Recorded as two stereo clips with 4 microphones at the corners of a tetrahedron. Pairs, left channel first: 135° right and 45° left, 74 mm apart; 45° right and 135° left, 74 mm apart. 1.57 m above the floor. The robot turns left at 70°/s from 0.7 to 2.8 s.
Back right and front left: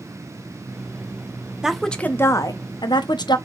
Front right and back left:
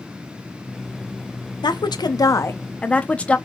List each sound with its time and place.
1.6 s a woman speaking: 35° right, 0.6 m; by 3.4 s 120° right, 0.6 m